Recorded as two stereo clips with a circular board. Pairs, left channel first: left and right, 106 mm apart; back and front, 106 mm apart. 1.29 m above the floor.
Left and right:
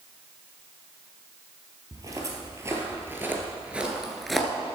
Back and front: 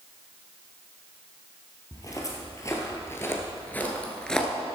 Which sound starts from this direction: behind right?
Footsteps, at 1.9 s.